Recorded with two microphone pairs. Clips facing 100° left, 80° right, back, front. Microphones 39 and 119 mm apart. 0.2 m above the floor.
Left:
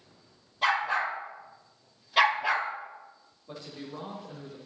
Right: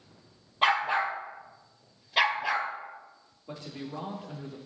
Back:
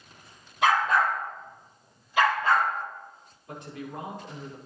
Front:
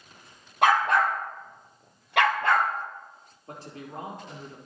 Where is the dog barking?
30° right, 3 m; by 2.7 s 20° left, 2.5 m.